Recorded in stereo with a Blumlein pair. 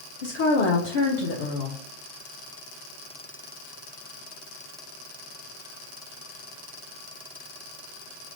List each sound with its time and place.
0.2 s a woman speaking: 55° left, 0.9 m